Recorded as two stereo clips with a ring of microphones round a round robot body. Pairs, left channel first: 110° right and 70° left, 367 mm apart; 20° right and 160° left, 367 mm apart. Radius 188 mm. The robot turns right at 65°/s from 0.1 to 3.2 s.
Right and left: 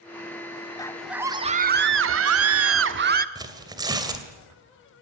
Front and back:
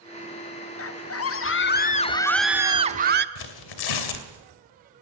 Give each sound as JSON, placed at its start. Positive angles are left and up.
{"t": 0.8, "sound": "a scream", "azimuth_deg": -40, "distance_m": 1.2}
{"t": 3.4, "sound": "tearing paper", "azimuth_deg": -10, "distance_m": 2.5}